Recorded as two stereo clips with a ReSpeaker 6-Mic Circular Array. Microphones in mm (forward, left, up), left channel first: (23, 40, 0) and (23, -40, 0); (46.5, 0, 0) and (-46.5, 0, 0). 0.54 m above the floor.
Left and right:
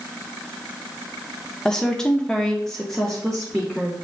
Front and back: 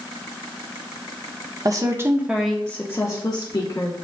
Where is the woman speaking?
165° left, 0.8 m; by 4.0 s straight ahead, 1.1 m.